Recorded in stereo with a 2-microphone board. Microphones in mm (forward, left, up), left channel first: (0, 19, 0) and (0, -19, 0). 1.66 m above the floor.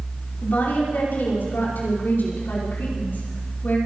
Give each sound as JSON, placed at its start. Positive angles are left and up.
{"t": 0.4, "sound": "a woman speaking", "side_deg": 55, "distance_m": 5.5}